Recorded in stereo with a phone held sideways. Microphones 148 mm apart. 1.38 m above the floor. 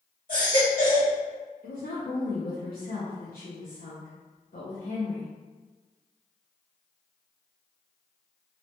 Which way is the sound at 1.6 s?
75° left (ahead or behind).